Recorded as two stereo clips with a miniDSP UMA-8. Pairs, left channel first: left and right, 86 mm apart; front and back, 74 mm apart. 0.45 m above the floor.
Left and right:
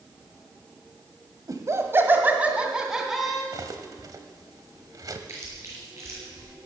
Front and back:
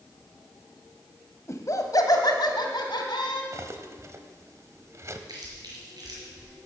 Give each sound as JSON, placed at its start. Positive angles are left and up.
{"t": 1.5, "sound": "laughter", "azimuth_deg": -50, "distance_m": 2.0}
{"t": 3.5, "sound": "cutlery clinking", "azimuth_deg": -130, "distance_m": 1.1}
{"t": 5.3, "sound": "chewing", "azimuth_deg": -145, "distance_m": 5.0}